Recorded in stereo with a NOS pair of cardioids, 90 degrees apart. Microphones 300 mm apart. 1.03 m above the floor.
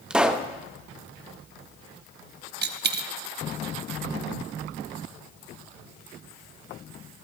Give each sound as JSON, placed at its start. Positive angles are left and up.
{"t": 0.1, "sound": "a pop", "azimuth_deg": -5, "distance_m": 0.9}
{"t": 2.6, "sound": "a dropped coin", "azimuth_deg": -35, "distance_m": 1.0}